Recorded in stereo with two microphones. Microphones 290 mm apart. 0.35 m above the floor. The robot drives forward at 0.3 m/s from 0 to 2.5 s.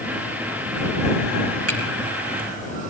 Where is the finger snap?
55° right (ahead or behind), 3.5 m.